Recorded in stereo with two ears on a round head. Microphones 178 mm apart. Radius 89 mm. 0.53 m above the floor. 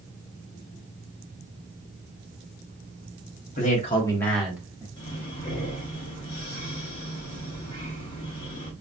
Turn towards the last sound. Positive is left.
turn(degrees=25)  # may be behind; listen again after turning